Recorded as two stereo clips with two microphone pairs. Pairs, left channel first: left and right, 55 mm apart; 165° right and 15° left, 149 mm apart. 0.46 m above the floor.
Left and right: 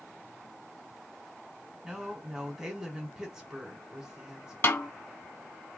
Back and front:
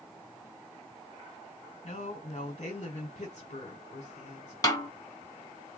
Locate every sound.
1.8 s a woman speaking: 165° right, 1.6 m
4.6 s a snare drum: 130° left, 1.2 m